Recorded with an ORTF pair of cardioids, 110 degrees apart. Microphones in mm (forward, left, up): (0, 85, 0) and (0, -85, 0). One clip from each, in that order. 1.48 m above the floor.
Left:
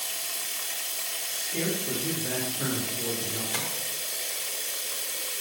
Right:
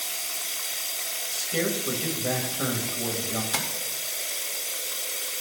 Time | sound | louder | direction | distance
0.0 | running water | right 1 dB | 5° right | 3 m
1.3 | a man speaking | right 4 dB | 60° right | 2.5 m
3.5 | tapping | right 3 dB | 45° right | 1.9 m